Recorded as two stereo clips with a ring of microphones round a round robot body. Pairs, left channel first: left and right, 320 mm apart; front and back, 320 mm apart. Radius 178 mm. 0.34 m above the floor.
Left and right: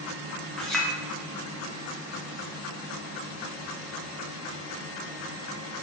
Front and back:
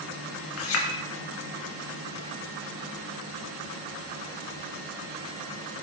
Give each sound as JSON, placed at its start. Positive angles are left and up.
{"t": 0.6, "sound": "a clink", "azimuth_deg": 0, "distance_m": 0.6}